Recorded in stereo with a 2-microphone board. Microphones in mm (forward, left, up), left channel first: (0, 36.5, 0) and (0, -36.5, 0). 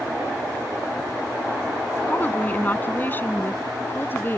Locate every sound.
2.1 s a woman speaking: 25° left (ahead or behind); by 4.4 s 30° left (ahead or behind)